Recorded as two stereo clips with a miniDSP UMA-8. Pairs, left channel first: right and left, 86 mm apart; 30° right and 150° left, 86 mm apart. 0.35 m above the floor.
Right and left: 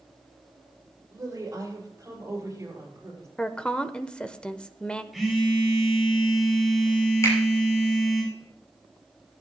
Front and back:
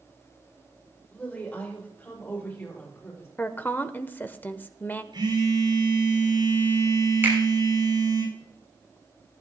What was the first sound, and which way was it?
A woman speaking, 40° left.